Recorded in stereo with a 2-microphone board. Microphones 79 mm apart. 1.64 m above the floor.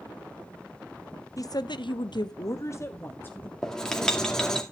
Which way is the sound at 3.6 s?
5° left (ahead or behind).